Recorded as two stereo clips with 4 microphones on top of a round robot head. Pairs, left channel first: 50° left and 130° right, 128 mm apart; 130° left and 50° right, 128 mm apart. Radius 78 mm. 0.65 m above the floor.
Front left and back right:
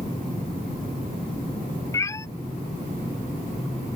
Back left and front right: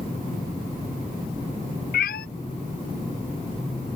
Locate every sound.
1.9 s a cat meowing: 120° left